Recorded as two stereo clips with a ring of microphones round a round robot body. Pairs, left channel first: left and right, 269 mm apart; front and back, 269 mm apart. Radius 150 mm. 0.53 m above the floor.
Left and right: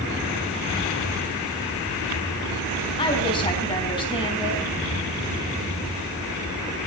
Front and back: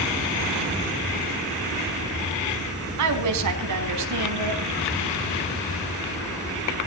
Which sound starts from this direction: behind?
A woman speaking, at 3.0 s.